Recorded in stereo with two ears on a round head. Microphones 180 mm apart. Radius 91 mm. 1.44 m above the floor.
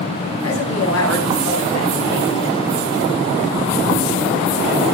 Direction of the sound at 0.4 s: 85° left.